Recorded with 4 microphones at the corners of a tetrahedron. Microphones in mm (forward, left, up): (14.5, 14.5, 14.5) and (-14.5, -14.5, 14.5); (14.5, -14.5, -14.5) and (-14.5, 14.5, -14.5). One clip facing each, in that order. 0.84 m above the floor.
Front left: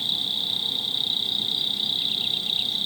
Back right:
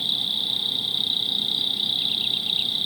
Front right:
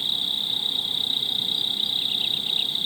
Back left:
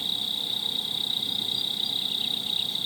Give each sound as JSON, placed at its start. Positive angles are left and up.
{"t": 0.0, "sound": "an insect", "azimuth_deg": -65}